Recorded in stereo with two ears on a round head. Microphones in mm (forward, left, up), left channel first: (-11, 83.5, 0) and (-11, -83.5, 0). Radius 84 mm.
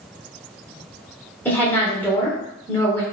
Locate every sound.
1.4 s a woman speaking: 10° left (ahead or behind), 0.9 m